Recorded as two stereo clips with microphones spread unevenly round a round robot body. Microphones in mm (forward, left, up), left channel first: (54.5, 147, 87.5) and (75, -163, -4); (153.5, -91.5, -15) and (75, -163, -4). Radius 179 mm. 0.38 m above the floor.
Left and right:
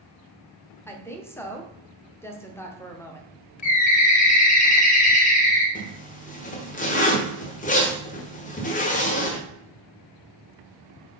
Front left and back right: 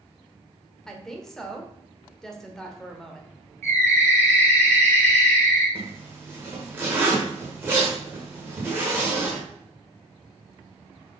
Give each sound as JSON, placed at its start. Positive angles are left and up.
{"t": 0.9, "sound": "a woman speaking", "azimuth_deg": -20, "distance_m": 1.2}
{"t": 3.6, "sound": "a bird", "azimuth_deg": 165, "distance_m": 1.0}
{"t": 5.8, "sound": "a zipper", "azimuth_deg": 165, "distance_m": 1.3}